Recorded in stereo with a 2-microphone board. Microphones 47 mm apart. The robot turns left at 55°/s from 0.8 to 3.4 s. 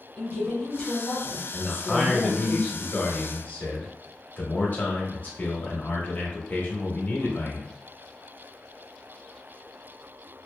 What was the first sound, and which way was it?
A woman speaking, 155° left.